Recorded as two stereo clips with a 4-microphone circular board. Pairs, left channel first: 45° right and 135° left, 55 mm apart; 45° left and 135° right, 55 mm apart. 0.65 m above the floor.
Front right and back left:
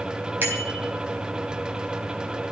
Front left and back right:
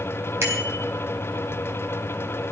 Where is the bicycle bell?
175° right, 4.5 m.